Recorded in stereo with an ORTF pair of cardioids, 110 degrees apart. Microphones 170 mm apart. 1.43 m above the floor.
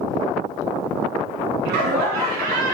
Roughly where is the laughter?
Right.